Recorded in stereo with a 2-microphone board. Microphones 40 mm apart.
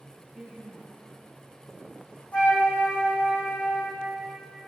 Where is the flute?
40° left (ahead or behind), 3.5 m.